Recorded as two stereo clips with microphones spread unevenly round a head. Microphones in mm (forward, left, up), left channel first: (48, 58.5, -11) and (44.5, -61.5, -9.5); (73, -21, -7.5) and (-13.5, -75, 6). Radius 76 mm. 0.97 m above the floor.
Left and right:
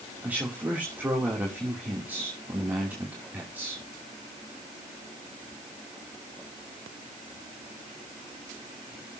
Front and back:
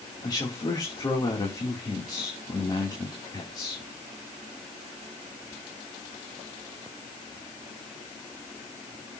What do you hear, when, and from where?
0.2 s a man speaking: 15° right, 2.5 m